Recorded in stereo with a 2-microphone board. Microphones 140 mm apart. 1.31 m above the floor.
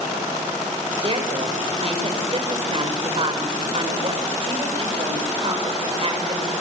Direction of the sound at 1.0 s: 45° right (ahead or behind).